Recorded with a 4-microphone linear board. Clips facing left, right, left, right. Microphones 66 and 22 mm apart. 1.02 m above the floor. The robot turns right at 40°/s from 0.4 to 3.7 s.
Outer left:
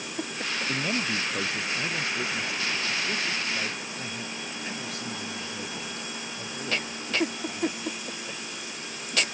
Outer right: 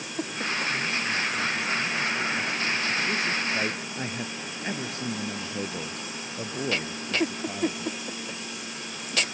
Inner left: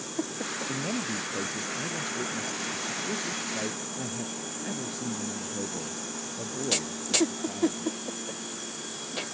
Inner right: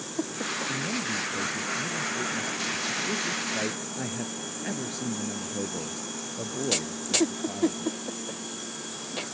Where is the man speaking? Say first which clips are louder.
Even, inner right 2 dB; 90° left; by 8.0 s 150° right.